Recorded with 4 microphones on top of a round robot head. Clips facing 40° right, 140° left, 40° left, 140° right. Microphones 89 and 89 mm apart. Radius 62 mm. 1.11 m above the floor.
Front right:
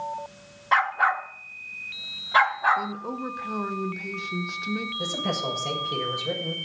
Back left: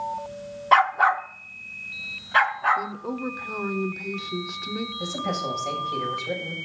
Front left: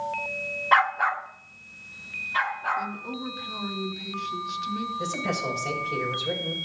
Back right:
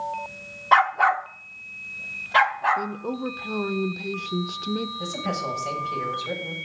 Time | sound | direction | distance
0.7 | a dog barking | 160° left | 0.5 m
2.8 | a woman speaking | 135° right | 0.7 m
5.0 | a man speaking | 25° right | 6.5 m